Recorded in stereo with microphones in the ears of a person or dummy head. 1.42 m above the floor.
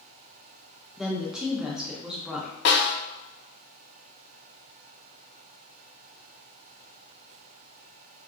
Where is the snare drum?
65° left (ahead or behind), 0.7 m.